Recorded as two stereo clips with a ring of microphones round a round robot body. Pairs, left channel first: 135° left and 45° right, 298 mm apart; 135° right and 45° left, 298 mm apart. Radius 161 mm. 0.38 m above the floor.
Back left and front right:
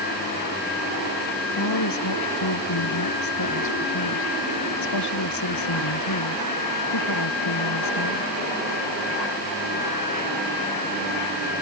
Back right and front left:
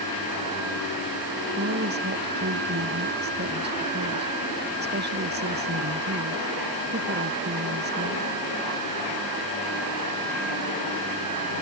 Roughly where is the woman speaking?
Left.